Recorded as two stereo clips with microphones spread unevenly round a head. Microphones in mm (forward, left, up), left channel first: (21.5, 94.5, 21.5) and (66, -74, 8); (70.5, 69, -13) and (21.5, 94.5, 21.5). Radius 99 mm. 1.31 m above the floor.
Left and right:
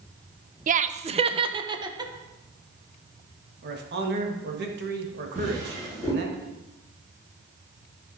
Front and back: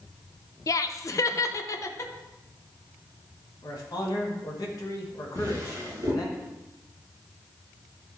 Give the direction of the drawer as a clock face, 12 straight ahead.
5 o'clock.